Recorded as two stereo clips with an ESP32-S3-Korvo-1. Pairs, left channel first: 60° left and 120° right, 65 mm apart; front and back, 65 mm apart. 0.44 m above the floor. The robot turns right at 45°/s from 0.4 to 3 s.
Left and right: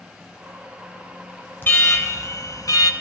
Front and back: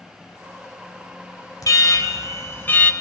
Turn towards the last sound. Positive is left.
turn(degrees=70)